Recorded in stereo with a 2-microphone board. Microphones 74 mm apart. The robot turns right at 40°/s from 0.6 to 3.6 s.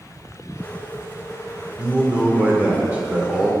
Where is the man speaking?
15° right (ahead or behind), 0.8 m.